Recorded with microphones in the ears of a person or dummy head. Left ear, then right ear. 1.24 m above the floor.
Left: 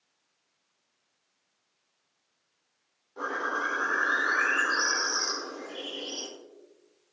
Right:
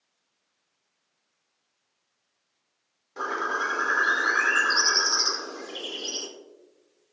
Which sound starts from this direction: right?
A bird, at 3.2 s.